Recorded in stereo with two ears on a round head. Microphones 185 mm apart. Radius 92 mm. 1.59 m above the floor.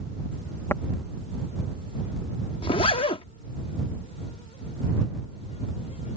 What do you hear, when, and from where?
0.7 s tapping: 15° left (ahead or behind)
2.6 s a zipper: 25° left (ahead or behind)